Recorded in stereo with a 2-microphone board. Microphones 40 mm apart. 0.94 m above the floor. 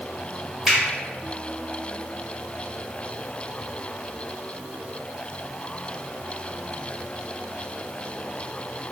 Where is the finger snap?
10° right (ahead or behind), 1.6 m.